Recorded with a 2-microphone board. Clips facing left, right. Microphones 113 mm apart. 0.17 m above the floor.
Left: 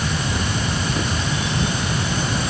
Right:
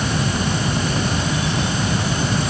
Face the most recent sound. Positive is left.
No sound to turn to.